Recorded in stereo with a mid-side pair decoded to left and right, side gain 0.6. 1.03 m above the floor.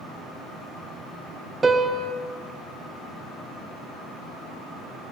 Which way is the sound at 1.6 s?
20° right.